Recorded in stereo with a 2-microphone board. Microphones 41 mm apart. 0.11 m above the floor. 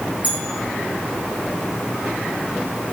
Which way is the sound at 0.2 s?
30° right (ahead or behind).